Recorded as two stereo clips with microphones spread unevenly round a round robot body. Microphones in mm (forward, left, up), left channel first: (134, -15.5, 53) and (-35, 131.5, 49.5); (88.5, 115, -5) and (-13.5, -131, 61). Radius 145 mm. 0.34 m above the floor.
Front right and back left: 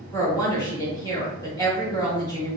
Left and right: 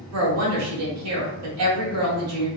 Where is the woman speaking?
110° right, 1.5 m.